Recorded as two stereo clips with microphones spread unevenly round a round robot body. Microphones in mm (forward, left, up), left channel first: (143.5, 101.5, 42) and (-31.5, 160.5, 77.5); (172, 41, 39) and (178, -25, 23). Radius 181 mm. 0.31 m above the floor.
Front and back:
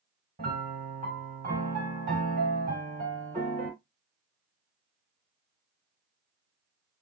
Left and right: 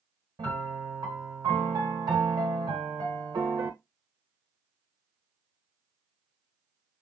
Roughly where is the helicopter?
I don't hear a helicopter.